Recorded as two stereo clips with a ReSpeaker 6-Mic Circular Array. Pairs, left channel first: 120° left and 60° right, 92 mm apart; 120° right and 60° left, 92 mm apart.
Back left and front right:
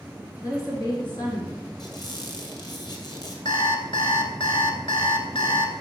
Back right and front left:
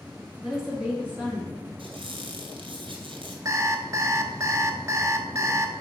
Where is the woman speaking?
145° left, 1.6 m; by 1.7 s 120° left, 2.0 m.